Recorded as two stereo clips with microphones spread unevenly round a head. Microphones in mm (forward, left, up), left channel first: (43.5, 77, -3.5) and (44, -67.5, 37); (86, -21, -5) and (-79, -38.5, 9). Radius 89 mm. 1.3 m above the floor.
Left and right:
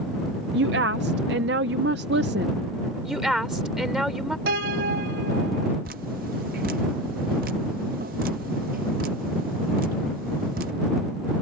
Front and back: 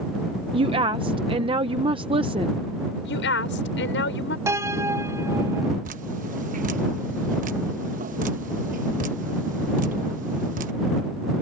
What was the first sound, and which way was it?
A woman speaking, 115° right.